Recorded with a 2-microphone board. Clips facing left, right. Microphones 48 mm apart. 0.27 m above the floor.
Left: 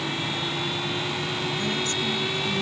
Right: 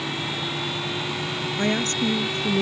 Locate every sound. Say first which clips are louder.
1.6 s a woman speaking: right 3 dB; 45° right (ahead or behind); by 2.6 s 55° right (ahead or behind)